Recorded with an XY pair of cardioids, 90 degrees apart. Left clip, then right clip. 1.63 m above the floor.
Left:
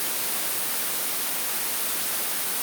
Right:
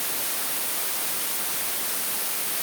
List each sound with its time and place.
Only background noise.